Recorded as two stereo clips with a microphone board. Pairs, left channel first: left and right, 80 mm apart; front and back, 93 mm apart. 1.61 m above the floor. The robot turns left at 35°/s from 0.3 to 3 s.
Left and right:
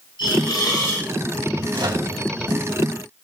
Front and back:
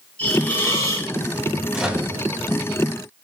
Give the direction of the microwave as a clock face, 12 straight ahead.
3 o'clock.